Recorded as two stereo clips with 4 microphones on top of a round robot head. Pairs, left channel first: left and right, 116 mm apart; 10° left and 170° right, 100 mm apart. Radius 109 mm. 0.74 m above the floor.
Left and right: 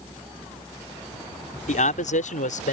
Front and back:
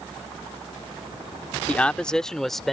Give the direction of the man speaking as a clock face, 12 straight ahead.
9 o'clock.